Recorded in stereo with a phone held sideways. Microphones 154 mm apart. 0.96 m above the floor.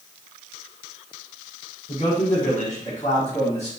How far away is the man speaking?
About 1.0 m.